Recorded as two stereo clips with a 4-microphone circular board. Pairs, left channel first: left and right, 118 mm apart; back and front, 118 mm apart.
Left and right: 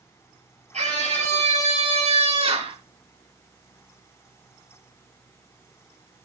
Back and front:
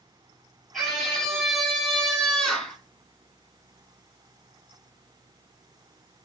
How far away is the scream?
About 4.5 m.